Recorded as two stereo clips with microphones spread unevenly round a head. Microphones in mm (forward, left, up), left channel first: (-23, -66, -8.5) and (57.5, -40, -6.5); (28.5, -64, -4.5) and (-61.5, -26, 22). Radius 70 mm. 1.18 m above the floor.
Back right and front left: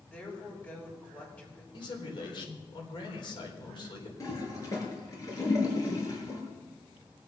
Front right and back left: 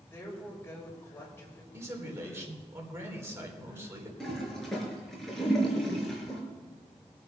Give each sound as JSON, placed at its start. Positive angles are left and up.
{"t": 0.1, "sound": "a woman speaking", "azimuth_deg": -95, "distance_m": 5.5}
{"t": 1.7, "sound": "a man speaking", "azimuth_deg": -140, "distance_m": 4.5}
{"t": 4.2, "sound": "a toilet flushing", "azimuth_deg": -115, "distance_m": 5.0}